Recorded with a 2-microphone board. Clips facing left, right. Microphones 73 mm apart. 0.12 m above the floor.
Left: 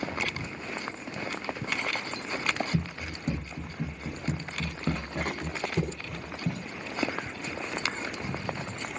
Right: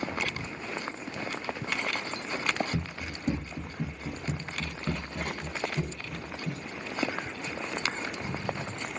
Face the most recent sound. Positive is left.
turn(degrees=80)